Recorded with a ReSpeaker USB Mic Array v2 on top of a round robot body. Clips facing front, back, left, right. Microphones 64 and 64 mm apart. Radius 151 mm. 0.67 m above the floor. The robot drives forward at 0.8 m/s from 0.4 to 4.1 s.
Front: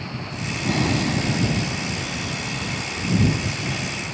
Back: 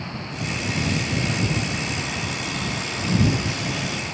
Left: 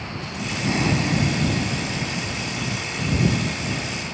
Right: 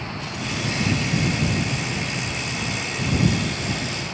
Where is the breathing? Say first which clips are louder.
Front 5 dB, left 3 dB; 35° left; by 2.8 s 60° left.